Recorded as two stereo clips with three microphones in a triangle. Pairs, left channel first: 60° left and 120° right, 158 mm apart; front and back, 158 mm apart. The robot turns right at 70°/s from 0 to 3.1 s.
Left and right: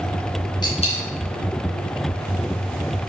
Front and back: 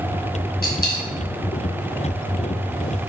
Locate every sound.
0.6 s a dropped coin: 5° right, 2.5 m; by 1.1 s 25° left, 2.5 m